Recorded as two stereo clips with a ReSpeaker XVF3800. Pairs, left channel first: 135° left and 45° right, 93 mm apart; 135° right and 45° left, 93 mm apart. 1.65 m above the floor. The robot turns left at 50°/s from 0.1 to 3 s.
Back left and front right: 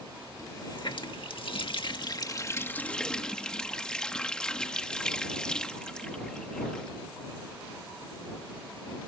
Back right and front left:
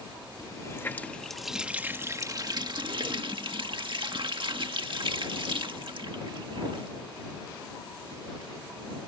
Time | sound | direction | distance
0.4 | a running tap | 175° right | ?